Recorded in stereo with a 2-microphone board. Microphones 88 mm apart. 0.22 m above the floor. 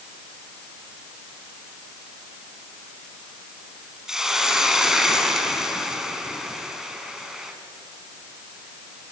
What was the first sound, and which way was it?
A hiss, 5° right (ahead or behind).